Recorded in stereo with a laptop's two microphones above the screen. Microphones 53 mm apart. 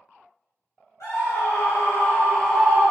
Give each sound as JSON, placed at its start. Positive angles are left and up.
{"t": 1.0, "sound": "a scream", "side_deg": 85, "distance_m": 1.4}